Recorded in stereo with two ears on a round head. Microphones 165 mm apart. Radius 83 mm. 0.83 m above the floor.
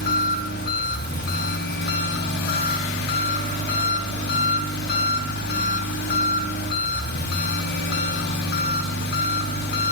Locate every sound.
0.0 s an engine running: 55° left (ahead or behind), 2 m